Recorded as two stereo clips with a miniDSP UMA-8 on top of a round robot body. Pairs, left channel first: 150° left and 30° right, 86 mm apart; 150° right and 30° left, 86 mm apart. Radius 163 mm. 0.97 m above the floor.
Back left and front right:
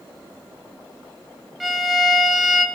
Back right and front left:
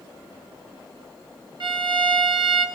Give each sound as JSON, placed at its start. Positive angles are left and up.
{"t": 1.6, "sound": "a violin", "azimuth_deg": 60, "distance_m": 0.7}